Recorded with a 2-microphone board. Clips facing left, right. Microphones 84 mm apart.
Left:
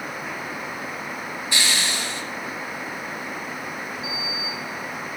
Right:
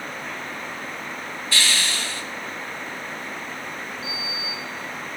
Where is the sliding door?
5° right (ahead or behind), 1.7 m.